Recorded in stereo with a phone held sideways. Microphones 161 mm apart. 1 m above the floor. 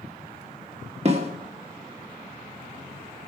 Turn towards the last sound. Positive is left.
turn(degrees=-40)  # may be behind; listen again after turning